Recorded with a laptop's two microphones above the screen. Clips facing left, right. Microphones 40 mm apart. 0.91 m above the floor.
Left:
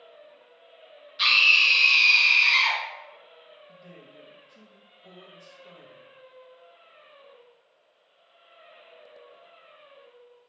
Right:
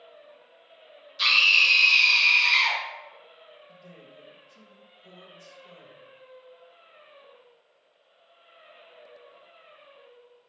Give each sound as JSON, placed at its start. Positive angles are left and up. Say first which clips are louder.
{"t": 1.2, "sound": "a scream", "louder": "left 1 dB", "side_deg": 20, "distance_m": 1.0}
{"t": 3.7, "sound": "a man speaking", "louder": "even", "side_deg": 25, "distance_m": 0.8}